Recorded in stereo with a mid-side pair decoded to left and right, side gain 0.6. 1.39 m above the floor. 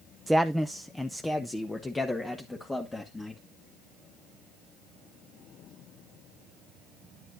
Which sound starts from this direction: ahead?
A man speaking, at 0.3 s.